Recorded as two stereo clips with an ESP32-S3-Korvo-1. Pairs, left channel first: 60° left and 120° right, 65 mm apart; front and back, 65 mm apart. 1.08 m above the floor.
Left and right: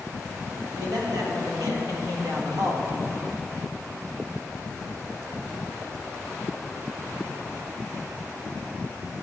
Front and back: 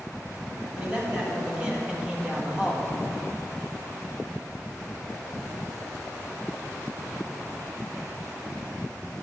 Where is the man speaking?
110° right, 2.5 m; by 2.9 s 100° right, 1.2 m.